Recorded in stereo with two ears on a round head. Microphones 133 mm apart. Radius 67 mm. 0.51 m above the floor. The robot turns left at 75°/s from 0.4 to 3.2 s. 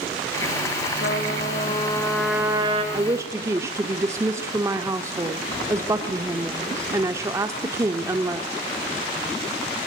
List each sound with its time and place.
1.0 s a trumpet: 95° left, 4.5 m; by 2.8 s 45° right, 4.5 m
2.9 s a woman speaking: 30° right (ahead or behind), 1.5 m; by 8.5 s 20° right (ahead or behind), 1.5 m